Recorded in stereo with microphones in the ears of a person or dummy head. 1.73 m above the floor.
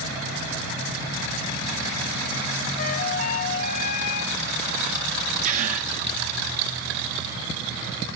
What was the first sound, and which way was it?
A flute, 45° left (ahead or behind).